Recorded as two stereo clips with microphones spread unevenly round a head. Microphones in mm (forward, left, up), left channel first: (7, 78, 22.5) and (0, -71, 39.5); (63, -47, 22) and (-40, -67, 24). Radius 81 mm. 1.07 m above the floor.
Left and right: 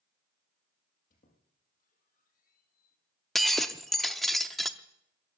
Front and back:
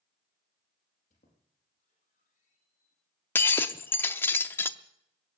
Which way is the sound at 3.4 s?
20° right.